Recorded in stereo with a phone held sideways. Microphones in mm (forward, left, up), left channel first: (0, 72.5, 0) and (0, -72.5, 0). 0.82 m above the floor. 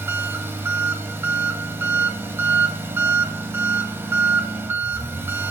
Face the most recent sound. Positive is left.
turn(degrees=-15)  # may be behind; listen again after turning